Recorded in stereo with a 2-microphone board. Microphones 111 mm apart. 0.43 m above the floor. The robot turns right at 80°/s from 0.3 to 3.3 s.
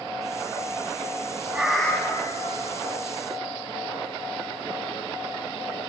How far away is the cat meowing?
About 1.5 m.